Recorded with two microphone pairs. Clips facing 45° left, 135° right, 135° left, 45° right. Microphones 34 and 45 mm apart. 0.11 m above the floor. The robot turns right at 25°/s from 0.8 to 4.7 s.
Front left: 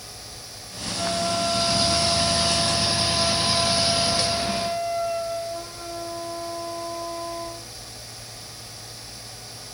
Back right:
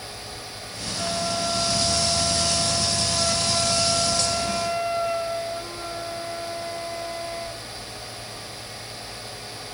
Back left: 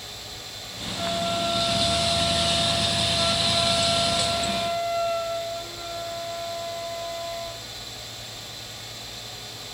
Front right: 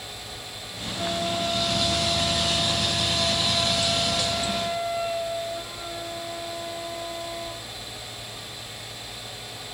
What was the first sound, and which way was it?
A flute, 120° left.